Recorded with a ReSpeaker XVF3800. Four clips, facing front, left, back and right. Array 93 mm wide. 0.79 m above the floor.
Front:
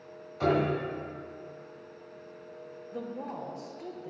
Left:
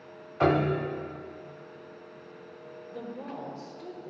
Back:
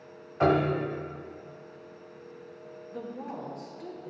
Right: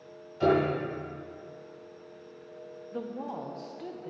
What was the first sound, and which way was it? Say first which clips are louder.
A piano: even, back 3 dB; 125° left.